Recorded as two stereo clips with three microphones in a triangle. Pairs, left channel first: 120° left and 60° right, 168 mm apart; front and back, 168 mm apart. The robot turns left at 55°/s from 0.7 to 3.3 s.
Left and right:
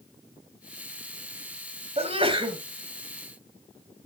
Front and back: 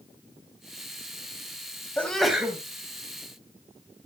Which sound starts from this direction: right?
A sneeze, at 2.0 s.